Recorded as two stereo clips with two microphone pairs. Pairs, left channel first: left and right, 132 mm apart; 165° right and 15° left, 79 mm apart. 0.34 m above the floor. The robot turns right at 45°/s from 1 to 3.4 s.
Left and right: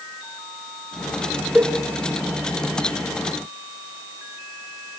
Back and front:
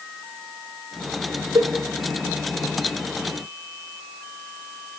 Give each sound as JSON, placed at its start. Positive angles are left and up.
{"t": 1.6, "sound": "a cowbell", "azimuth_deg": -10, "distance_m": 1.4}